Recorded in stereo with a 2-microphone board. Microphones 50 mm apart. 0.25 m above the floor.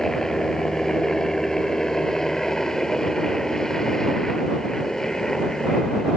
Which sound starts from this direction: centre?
A helicopter, at 0.0 s.